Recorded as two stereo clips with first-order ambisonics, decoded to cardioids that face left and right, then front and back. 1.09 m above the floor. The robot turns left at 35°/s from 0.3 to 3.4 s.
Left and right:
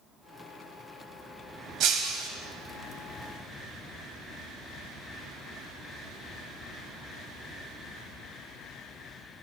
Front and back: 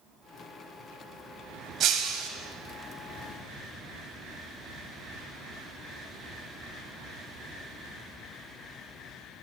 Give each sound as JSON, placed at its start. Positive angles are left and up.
{"t": 1.8, "sound": "breaking glass", "azimuth_deg": -130, "distance_m": 2.0}